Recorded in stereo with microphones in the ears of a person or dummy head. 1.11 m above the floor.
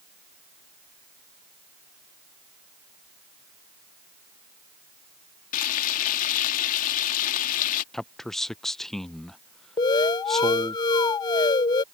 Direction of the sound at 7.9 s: 5° left (ahead or behind).